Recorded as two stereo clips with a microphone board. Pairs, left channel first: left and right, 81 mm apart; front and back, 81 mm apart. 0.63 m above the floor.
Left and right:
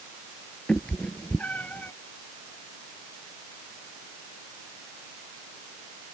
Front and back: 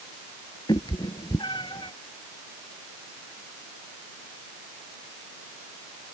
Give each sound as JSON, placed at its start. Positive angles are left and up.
{"t": 0.7, "sound": "a cat meowing", "azimuth_deg": 15}